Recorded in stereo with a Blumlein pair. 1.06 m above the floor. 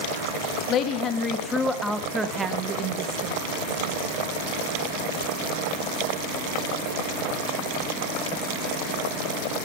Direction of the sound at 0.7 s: 35° left.